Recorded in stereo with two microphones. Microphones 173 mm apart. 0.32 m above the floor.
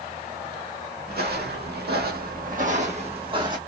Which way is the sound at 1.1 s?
65° right (ahead or behind).